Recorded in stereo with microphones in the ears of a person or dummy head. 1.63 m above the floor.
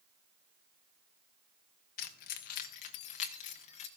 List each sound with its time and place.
2.0 s keys jangling: 40° left (ahead or behind), 1.0 m